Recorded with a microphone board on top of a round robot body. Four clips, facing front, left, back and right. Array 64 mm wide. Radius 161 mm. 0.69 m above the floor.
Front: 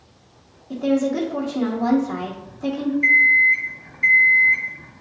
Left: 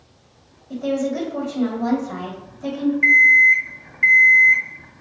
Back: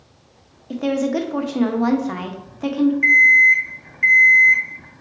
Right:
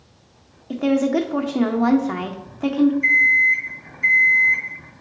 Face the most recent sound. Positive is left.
turn(degrees=120)